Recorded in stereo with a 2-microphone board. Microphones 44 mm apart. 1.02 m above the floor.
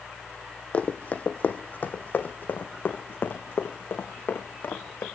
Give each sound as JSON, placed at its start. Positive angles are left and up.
{"t": 0.7, "sound": "running footsteps", "side_deg": 30, "distance_m": 2.5}